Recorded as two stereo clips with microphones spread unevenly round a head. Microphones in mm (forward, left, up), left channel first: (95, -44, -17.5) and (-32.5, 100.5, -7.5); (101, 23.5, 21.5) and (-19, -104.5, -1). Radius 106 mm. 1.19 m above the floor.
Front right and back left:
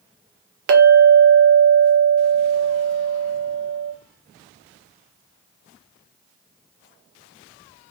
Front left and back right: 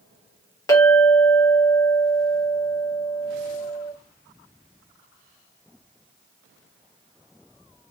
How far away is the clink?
About 0.6 m.